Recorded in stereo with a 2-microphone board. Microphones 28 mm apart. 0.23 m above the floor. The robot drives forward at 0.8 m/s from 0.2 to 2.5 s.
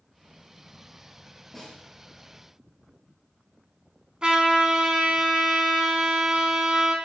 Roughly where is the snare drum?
Centre.